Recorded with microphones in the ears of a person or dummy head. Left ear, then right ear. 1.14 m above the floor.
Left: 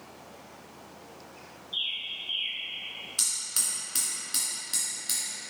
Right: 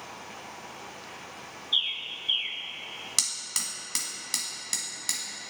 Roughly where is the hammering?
Right.